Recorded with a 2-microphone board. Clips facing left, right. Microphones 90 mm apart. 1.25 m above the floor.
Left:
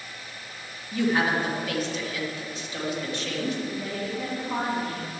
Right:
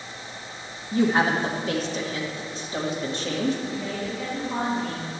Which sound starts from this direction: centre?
A woman speaking, at 3.6 s.